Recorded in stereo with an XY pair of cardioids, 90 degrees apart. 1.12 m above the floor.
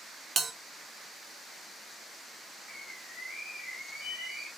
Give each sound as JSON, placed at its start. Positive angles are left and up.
{"t": 0.4, "sound": "a bell", "azimuth_deg": -35, "distance_m": 0.5}
{"t": 2.7, "sound": "a bird", "azimuth_deg": 55, "distance_m": 1.8}